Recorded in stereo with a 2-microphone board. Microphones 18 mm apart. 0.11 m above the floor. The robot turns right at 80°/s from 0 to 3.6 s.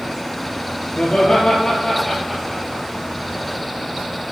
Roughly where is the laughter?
Left.